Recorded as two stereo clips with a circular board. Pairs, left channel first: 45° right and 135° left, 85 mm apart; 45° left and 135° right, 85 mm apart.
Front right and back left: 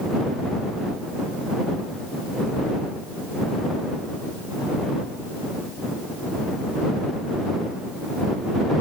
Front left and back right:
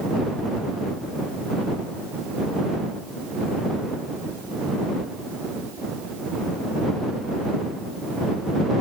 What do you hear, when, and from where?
Only background noise.